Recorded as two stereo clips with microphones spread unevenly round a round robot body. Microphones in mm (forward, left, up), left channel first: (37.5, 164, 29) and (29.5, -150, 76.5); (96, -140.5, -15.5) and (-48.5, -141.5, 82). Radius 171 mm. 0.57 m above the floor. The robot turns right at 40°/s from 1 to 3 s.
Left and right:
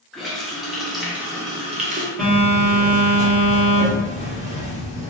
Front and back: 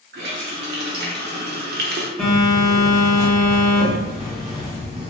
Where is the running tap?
170° left, 0.6 m; by 2.1 s 150° right, 0.6 m.